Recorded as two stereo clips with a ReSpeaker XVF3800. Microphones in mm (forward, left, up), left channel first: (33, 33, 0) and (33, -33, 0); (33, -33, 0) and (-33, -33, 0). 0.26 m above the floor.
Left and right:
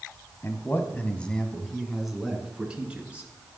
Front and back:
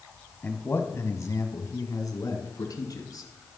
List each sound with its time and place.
0.4 s a man speaking: 60° left, 1.3 m; by 3.3 s 15° right, 3 m